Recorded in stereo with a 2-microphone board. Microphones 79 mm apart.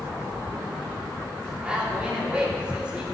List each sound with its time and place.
1.6 s a man speaking: 15° right (ahead or behind), 2.5 m